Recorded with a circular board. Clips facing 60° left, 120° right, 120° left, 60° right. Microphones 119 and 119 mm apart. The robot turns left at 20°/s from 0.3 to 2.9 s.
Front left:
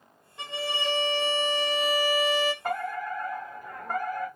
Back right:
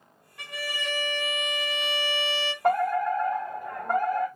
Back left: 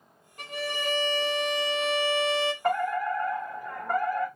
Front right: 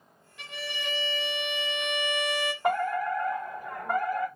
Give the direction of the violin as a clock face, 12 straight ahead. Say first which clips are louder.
Front left 4 dB, back left 6 dB; 8 o'clock.